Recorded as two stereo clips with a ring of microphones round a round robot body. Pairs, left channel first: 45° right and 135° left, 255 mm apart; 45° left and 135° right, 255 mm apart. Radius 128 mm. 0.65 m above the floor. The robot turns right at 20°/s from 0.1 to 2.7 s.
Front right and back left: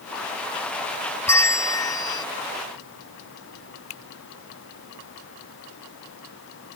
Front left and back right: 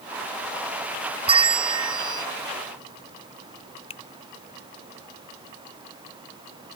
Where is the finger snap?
20° right.